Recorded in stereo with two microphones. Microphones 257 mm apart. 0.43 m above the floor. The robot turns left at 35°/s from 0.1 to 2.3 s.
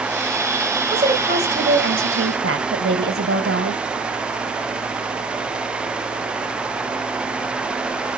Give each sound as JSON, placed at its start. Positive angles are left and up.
{"t": 0.9, "sound": "a woman speaking", "azimuth_deg": -30, "distance_m": 2.0}